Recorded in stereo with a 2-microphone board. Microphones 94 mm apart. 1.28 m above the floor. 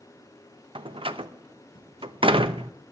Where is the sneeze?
I don't hear a sneeze.